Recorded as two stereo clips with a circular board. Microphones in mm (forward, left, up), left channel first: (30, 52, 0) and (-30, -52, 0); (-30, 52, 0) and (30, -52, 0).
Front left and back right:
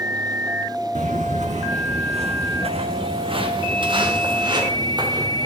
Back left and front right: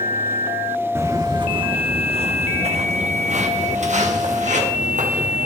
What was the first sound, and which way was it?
Footsteps, 130° right.